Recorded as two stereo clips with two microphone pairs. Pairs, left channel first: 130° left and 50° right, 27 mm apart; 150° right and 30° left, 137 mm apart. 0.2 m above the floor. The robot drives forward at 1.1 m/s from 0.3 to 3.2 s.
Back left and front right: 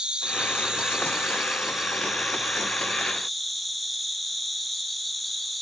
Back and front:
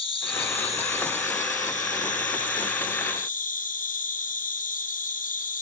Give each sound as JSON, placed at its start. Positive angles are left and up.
{"t": 0.0, "sound": "an insect", "azimuth_deg": -100, "distance_m": 3.0}